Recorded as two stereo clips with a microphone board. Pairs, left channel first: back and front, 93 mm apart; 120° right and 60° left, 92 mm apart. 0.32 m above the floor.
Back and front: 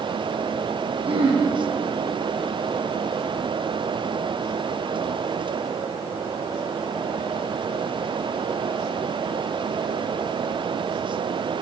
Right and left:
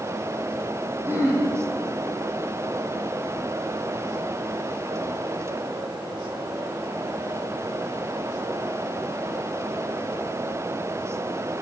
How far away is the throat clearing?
About 6 m.